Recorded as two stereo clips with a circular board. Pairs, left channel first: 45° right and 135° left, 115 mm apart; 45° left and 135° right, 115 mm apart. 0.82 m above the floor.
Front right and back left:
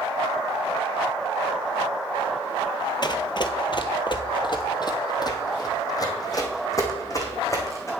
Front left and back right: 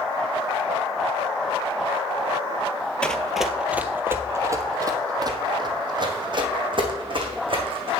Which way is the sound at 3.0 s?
35° right.